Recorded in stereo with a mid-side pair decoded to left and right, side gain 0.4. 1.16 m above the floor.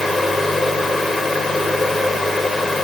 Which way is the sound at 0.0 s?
25° left.